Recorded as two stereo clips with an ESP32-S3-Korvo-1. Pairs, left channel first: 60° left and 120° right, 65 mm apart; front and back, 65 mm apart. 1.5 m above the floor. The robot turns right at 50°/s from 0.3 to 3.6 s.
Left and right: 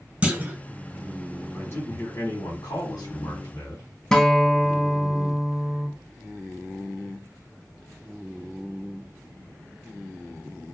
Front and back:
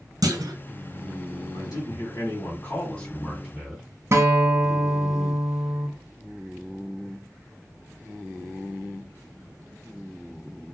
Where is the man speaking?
5° right, 1.2 m; by 3.9 s 95° left, 1.2 m.